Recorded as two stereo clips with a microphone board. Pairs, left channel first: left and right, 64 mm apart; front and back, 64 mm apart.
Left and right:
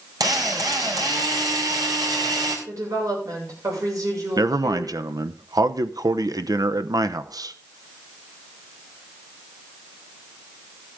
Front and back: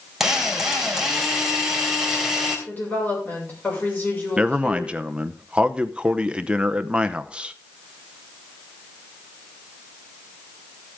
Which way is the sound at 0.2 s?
95° right.